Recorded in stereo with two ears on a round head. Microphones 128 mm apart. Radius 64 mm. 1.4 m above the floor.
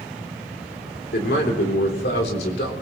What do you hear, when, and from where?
1.1 s a man speaking: 80° left, 3.5 m